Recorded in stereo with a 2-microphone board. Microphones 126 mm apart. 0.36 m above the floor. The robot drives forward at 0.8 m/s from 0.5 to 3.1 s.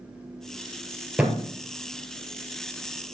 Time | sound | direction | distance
1.2 | a thud | 5° right (ahead or behind) | 2.5 m